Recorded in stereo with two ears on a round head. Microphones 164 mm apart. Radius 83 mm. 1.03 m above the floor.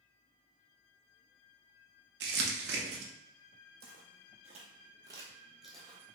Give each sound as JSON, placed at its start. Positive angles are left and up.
{"t": 2.2, "sound": "crumpling", "side_deg": -65, "distance_m": 0.7}
{"t": 3.8, "sound": "footsteps", "side_deg": -55, "distance_m": 1.7}